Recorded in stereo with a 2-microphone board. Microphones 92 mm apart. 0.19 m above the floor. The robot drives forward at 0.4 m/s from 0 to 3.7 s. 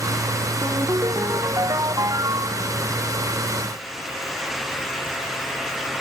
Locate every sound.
0.6 s a ringtone: 40° right (ahead or behind)